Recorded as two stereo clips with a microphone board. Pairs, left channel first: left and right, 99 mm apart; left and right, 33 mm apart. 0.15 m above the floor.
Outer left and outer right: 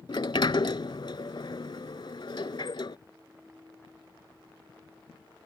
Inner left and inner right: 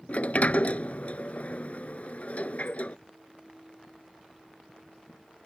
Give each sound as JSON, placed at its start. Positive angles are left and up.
{"t": 0.1, "sound": "a sliding door", "side_deg": 55}